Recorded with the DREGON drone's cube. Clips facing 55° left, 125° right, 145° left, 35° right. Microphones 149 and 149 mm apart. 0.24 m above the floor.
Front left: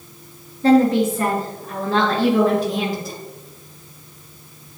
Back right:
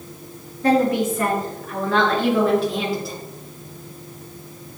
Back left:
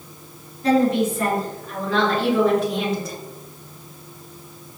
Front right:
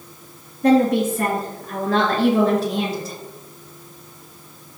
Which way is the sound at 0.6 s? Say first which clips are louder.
Front left 4 dB, front right 2 dB; 10° right.